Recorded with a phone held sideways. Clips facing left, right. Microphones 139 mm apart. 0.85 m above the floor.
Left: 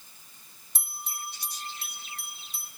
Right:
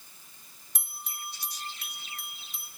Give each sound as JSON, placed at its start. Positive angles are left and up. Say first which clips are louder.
{"t": 0.8, "sound": "a bell", "louder": "left 3 dB", "side_deg": 30, "distance_m": 1.4}